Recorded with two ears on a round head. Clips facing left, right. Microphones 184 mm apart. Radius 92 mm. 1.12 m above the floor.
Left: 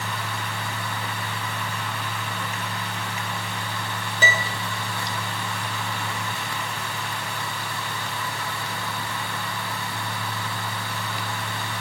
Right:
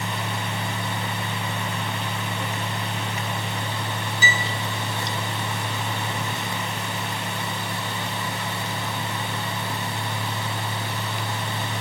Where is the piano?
55° left (ahead or behind), 3 m.